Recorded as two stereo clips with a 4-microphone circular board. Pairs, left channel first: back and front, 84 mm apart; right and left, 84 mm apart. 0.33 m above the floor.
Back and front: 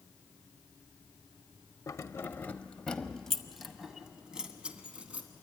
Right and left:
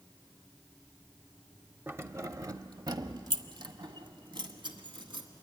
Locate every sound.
1.9 s keys jangling: 145° left, 0.8 m; by 5.3 s 75° left, 1.9 m